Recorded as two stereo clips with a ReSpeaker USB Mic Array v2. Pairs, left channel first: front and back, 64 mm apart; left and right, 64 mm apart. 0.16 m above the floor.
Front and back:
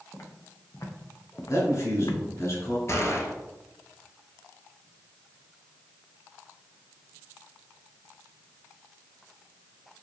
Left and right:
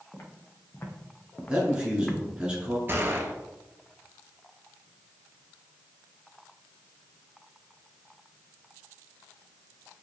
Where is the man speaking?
20° right, 1.6 m.